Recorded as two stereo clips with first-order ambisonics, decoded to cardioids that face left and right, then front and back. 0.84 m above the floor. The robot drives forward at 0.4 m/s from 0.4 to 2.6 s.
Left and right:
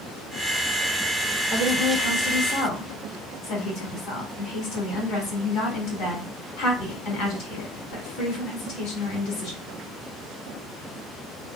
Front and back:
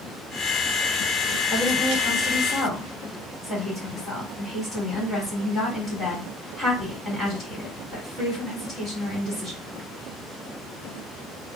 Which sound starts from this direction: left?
A woman speaking, at 1.5 s.